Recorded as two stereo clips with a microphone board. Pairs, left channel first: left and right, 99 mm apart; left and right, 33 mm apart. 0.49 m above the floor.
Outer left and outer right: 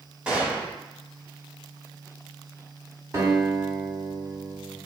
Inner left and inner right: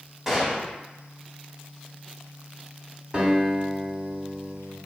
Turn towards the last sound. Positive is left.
turn(degrees=-35)  # may be behind; listen again after turning